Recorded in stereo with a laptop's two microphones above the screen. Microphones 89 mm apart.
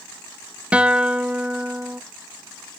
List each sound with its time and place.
0.7 s a guitar: 15° right (ahead or behind), 0.7 m